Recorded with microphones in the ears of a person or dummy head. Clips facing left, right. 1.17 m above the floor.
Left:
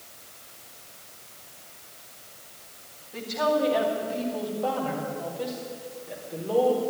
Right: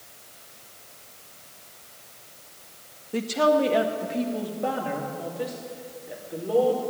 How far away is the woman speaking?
About 1.4 m.